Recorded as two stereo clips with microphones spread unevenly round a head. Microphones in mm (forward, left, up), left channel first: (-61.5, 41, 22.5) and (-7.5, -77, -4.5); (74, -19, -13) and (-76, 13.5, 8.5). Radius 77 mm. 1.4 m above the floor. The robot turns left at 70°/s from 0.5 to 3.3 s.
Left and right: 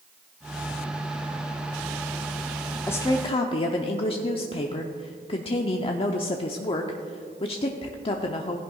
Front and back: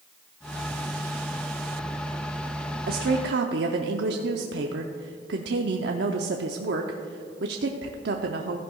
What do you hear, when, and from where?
2.9 s a woman speaking: 165° right, 0.6 m; by 8.6 s 165° left, 0.6 m